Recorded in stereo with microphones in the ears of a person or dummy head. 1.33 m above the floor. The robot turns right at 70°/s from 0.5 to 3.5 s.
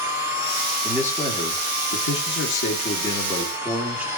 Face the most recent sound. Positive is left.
turn(degrees=-175)